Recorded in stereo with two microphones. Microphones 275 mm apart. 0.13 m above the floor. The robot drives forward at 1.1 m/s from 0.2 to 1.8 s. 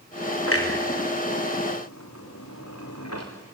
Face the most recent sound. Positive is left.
turn(degrees=65)  # may be behind; listen again after turning